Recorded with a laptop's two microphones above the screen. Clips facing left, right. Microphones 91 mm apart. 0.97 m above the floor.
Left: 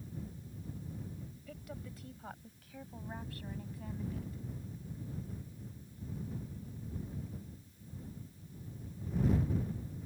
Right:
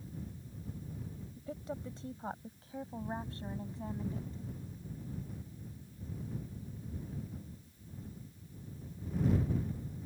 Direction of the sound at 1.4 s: 30° right (ahead or behind).